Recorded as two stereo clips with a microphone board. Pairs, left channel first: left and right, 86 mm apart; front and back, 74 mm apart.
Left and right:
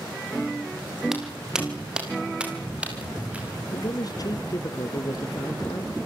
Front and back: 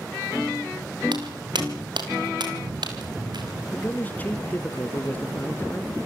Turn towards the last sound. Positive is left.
turn(degrees=60)